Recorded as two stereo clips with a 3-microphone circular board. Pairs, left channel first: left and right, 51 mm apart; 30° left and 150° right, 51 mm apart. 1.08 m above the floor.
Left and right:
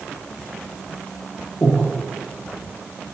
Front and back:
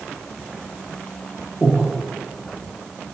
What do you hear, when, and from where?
1.6 s breathing: 135° left, 0.6 m